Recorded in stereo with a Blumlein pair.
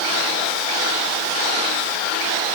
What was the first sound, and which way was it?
Only background noise.